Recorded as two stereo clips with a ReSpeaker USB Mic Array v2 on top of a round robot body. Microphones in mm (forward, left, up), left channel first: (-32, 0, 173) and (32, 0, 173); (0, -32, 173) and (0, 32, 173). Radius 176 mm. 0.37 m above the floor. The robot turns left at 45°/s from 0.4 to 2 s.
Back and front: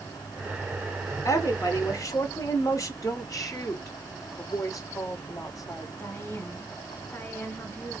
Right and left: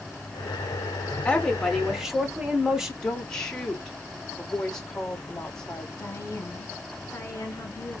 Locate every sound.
1.2 s a woman speaking: 155° right, 1.6 m; by 2.9 s 170° left, 1.6 m
3.0 s a woman speaking: 170° right, 2 m
6.0 s a woman speaking: 135° right, 2 m